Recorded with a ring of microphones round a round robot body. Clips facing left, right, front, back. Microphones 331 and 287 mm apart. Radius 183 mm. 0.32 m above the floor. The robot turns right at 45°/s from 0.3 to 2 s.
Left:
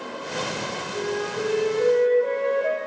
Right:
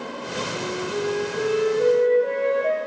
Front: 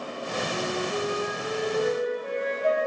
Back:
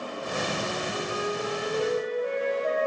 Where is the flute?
60° right, 5.5 m; by 2.8 s 5° left, 5.5 m.